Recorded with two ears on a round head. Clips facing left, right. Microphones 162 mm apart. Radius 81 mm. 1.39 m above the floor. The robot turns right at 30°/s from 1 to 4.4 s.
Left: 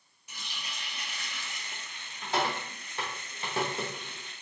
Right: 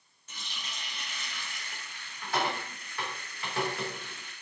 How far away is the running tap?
About 0.6 m.